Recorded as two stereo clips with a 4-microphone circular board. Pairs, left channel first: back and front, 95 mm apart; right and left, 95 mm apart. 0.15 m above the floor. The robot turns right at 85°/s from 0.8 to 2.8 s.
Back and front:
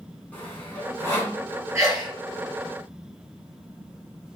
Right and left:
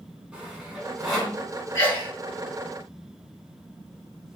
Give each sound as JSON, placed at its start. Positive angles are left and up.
{"t": 0.3, "sound": "sawing", "azimuth_deg": 155, "distance_m": 1.2}
{"t": 1.8, "sound": "a sneeze", "azimuth_deg": -40, "distance_m": 1.7}